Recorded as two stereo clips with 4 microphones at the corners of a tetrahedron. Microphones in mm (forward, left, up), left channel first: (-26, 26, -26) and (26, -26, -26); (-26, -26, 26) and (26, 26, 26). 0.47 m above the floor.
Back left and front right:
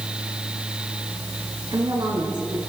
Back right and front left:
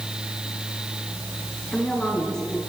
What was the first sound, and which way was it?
A woman speaking, 55° right.